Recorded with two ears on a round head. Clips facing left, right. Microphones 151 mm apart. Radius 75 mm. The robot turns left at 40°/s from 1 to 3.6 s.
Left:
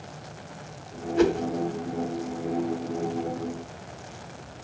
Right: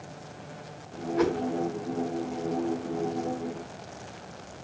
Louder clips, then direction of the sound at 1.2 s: Left 4 dB; 35° left (ahead or behind).